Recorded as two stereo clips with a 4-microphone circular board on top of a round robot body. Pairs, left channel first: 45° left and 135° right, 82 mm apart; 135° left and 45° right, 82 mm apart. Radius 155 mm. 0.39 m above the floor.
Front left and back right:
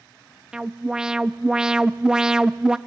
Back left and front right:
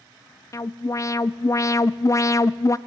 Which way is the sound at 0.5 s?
150° left.